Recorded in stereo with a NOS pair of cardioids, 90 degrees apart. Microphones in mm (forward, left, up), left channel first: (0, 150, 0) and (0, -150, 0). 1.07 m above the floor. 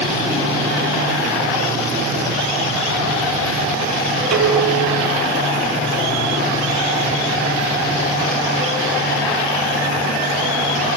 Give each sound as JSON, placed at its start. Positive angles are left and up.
{"t": 4.3, "sound": "dishes clattering", "azimuth_deg": -60, "distance_m": 6.5}